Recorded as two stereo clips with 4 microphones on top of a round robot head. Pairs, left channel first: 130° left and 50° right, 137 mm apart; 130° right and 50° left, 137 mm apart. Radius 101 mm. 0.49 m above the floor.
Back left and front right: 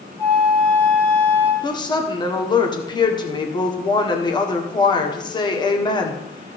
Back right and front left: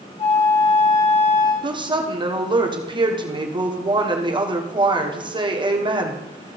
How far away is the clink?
No clink in this recording.